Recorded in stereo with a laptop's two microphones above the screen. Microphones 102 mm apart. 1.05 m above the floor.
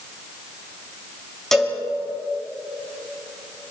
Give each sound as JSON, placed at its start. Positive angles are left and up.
{"t": 1.5, "sound": "a cowbell", "side_deg": 5, "distance_m": 4.0}